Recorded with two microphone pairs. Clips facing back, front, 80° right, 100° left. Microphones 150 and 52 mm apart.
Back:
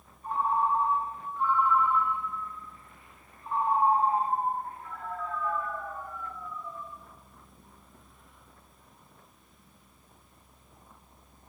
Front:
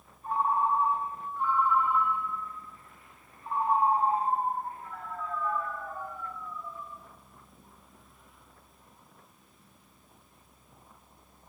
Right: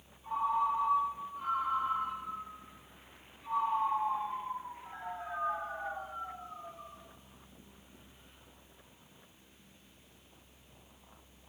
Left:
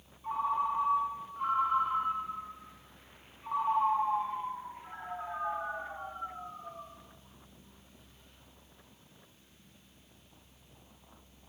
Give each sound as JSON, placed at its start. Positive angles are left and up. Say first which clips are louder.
{"t": 0.2, "sound": "a ringtone", "louder": "even, even", "azimuth_deg": 80, "distance_m": 0.7}